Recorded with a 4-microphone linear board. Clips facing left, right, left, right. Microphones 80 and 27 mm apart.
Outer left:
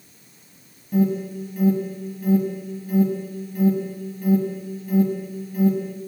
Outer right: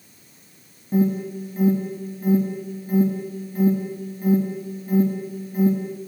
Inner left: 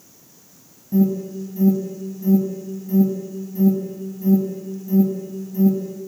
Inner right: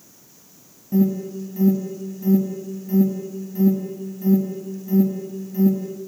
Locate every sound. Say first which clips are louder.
0.9 s an alarm: even, inner left 1 dB; 25° right (ahead or behind), 1.2 m